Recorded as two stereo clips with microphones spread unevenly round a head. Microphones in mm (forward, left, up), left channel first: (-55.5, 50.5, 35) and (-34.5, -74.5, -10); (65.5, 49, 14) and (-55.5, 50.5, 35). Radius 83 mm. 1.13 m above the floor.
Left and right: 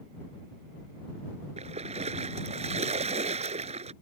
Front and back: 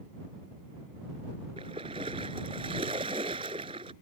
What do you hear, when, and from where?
1.6 s a splash: 125° right